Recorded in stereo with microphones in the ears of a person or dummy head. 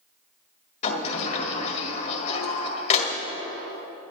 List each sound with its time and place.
0.8 s a sliding door: 40° left (ahead or behind), 1.9 m